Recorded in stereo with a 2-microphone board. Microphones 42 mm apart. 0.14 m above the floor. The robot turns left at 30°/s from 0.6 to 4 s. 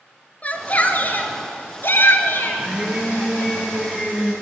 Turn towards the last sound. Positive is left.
turn(degrees=-165)